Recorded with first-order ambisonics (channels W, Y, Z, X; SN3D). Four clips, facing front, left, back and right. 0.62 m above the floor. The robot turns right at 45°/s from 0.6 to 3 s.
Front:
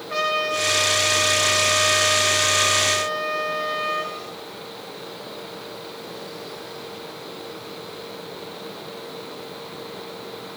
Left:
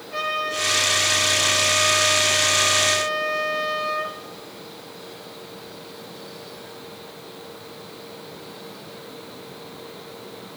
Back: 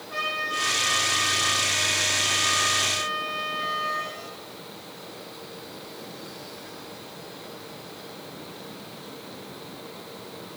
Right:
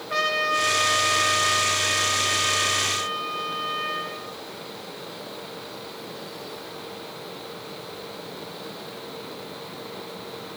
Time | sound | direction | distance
0.1 | a trumpet | 55° right | 1.2 m